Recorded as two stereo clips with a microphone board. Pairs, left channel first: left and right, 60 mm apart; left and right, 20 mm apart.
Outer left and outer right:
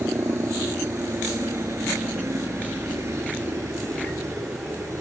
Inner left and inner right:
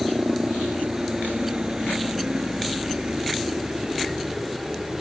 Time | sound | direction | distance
0.0 | a helicopter | 45° right (ahead or behind) | ?